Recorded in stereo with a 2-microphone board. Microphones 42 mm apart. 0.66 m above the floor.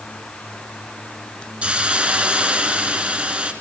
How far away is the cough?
I don't hear a cough.